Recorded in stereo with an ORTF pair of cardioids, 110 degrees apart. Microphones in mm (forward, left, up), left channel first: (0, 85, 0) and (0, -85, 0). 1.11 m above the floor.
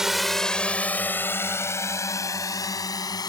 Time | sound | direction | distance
0.0 | a drone | 5° right | ?